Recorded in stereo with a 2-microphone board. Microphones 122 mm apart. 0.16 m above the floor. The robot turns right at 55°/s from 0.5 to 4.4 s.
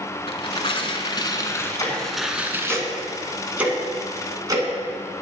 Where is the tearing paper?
90° left, 0.9 m; by 2.8 s 145° right, 0.9 m.